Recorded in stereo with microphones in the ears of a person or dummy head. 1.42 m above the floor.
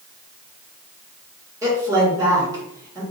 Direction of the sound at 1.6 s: 20° right (ahead or behind).